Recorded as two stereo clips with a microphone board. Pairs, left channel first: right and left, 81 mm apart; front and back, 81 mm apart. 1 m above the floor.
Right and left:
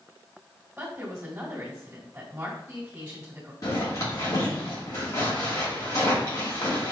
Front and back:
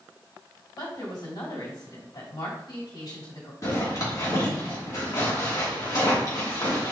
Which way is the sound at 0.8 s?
20° left.